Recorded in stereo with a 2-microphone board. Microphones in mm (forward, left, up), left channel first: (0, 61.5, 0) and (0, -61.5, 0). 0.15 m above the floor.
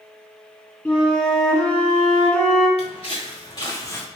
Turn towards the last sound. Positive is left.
turn(degrees=15)  # may be behind; listen again after turning